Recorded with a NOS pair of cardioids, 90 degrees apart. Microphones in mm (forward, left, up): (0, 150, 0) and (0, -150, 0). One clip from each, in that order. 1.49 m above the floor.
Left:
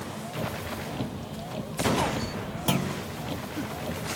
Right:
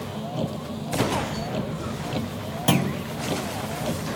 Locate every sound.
0.0 s a vehicle: 45° right
2.7 s a clunk: 30° right